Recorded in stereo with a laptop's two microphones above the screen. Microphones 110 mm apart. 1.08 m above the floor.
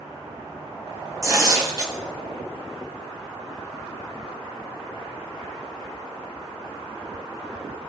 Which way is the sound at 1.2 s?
35° right (ahead or behind).